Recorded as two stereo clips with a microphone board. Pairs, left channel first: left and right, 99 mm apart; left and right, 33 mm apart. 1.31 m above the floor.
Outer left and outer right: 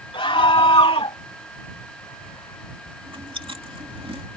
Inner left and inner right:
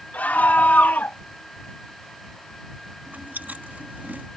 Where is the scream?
65° left (ahead or behind); by 1.2 s 75° left (ahead or behind).